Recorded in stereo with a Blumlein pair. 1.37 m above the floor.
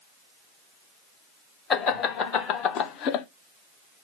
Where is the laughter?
30° left, 1.5 m; by 3.2 s 40° left, 0.6 m.